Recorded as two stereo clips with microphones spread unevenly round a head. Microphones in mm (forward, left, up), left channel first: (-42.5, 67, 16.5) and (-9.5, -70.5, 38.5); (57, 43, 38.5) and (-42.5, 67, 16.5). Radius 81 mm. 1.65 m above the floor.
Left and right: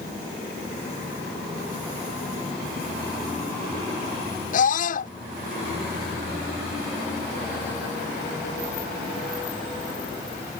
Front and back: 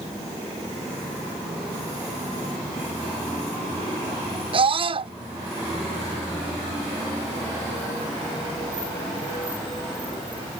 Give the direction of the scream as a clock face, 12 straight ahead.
8 o'clock.